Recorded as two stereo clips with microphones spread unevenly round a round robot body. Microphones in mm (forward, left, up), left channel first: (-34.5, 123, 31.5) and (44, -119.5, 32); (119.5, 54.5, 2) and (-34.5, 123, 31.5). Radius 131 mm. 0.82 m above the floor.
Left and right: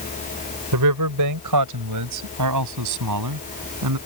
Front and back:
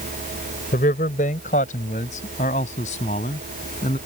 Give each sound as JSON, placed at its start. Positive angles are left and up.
{"t": 0.7, "sound": "a man speaking", "azimuth_deg": -80}